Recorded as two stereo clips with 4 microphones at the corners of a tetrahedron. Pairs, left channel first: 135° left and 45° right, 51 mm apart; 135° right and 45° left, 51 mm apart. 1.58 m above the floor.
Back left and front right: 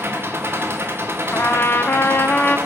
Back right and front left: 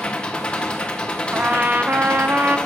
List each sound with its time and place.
0.0 s an engine running: 70° right, 0.8 m
1.3 s a trumpet: 90° left, 0.5 m